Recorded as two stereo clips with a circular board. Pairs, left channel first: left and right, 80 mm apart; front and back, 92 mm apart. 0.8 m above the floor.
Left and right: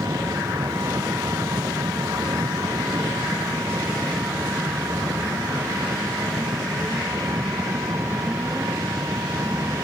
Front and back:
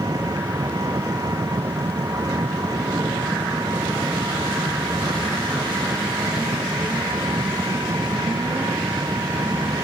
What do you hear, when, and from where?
0.0 s an engine running: 135° right